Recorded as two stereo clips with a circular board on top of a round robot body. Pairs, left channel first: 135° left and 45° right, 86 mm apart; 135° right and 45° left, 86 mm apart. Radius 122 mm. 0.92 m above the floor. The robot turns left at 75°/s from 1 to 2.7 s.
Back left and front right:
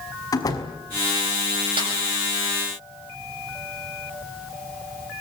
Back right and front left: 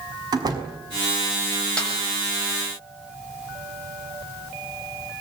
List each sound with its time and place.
0.3 s a door slam: 90° left, 5 m
1.8 s a snare drum: 55° right, 7.5 m; by 1.9 s 65° right, 7.5 m